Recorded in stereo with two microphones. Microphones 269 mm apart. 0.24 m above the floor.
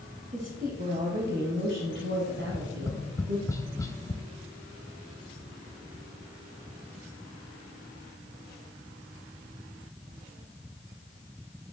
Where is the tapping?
10° left (ahead or behind), 0.5 m.